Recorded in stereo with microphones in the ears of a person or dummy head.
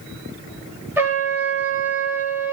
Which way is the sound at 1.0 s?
10° right (ahead or behind).